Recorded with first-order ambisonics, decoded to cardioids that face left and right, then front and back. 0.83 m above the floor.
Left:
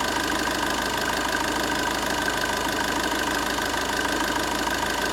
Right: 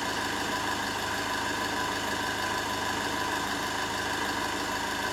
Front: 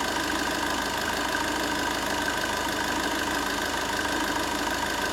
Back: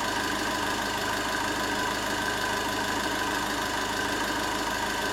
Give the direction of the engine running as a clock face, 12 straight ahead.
9 o'clock.